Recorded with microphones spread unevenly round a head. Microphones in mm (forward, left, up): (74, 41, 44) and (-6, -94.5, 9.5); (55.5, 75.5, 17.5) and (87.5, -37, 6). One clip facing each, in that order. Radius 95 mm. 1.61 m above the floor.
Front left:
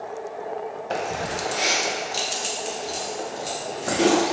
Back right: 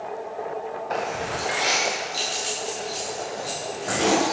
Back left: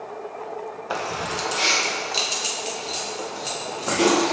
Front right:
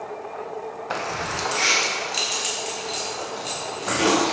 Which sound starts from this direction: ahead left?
Keys jangling, at 0.9 s.